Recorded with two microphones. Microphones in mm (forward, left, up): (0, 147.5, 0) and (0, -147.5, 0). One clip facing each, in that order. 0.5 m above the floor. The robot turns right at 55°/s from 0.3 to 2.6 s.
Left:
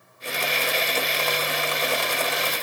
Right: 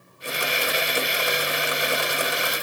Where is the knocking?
No knocking in this recording.